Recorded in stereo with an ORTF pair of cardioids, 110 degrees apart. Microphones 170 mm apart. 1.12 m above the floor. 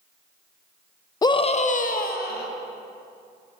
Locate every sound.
1.2 s a scream: 20° left, 0.5 m; by 2.5 s 70° left, 1.1 m